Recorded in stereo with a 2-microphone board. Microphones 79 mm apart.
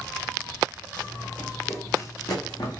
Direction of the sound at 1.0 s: 10° left (ahead or behind).